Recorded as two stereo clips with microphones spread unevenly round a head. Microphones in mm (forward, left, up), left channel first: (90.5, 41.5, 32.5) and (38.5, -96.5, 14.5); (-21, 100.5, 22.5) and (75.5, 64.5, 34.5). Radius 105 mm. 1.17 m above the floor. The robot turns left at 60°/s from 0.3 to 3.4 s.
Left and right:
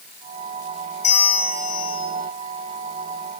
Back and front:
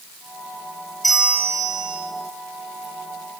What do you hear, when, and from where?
1.0 s a bell: 70° left, 3 m; by 2.1 s 10° left, 3 m